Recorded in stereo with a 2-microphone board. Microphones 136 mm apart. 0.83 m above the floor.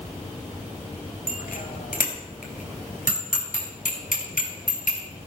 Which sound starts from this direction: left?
A bicycle bell, at 1.3 s.